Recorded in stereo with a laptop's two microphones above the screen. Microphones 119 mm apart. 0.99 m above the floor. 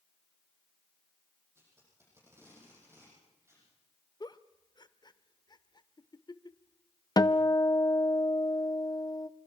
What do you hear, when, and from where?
1.6 s tape being pulled: 20° right (ahead or behind), 9 m
4.2 s a giggle: 35° left (ahead or behind), 0.8 m
7.2 s a guitar: 35° left (ahead or behind), 0.6 m